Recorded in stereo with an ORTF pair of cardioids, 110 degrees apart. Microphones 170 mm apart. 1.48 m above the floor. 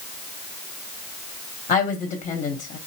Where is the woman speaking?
45° left, 1.1 m.